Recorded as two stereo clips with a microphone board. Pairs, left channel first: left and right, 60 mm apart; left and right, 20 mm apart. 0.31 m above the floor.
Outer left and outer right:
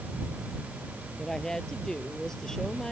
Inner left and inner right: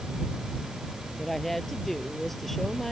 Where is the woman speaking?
10° left (ahead or behind).